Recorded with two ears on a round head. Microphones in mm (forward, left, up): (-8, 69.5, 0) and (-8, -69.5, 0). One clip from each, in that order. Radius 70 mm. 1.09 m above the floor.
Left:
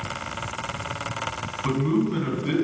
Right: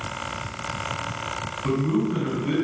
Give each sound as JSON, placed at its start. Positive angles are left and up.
{"t": 1.6, "sound": "a man speaking", "side_deg": 40, "distance_m": 7.5}